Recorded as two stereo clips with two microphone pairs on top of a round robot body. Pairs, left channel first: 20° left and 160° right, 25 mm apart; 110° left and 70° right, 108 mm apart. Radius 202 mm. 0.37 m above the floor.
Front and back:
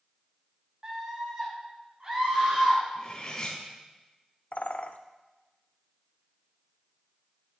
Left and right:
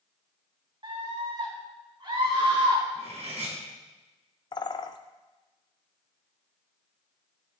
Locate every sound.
0.8 s a scream: 110° right, 5.5 m; by 2.8 s 115° right, 6.5 m
3.0 s cutlery clinking: 55° right, 3.5 m
4.5 s a bird: 55° left, 0.6 m